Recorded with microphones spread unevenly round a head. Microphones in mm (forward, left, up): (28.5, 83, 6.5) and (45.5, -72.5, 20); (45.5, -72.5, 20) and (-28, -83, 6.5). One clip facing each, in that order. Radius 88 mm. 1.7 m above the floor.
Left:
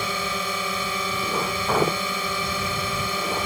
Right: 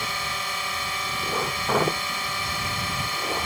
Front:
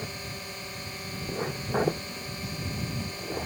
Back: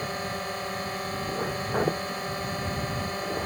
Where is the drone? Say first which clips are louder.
Left 5 dB, back 7 dB; 115° left.